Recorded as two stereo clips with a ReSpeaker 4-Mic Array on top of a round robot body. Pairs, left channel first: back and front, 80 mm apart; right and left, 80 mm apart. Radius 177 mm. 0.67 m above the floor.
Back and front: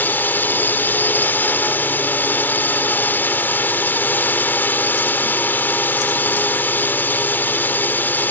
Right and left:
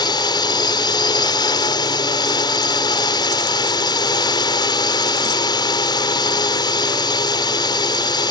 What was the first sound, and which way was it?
A drone, 115° right.